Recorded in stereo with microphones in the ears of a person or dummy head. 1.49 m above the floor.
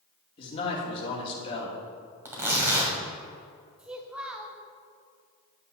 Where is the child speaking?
5° right (ahead or behind), 0.8 m.